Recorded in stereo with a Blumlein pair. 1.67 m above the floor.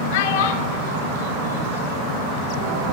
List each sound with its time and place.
0.1 s a child speaking: 55° left, 4.5 m; by 2.3 s 65° left, 6 m